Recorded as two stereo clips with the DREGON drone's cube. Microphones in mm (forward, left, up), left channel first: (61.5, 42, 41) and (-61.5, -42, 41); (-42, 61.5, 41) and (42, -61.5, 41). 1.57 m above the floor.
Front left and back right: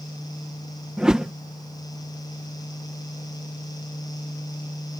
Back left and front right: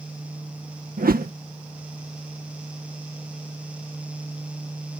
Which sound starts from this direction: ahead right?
A whoosh, at 1.0 s.